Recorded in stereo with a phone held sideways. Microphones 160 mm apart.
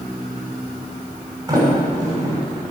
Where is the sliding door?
25° right (ahead or behind), 6.5 m.